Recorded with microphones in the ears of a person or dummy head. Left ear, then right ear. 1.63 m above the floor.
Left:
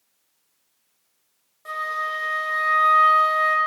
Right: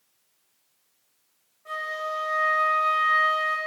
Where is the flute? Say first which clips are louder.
Left 4 dB; 65° left (ahead or behind), 1.4 m.